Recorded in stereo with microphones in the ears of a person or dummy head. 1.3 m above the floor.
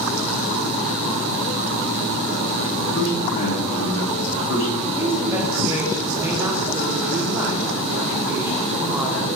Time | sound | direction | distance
3.0 | a man speaking | 75° left (ahead or behind) | 2.5 m
5.0 | a woman speaking | 15° right (ahead or behind) | 1.0 m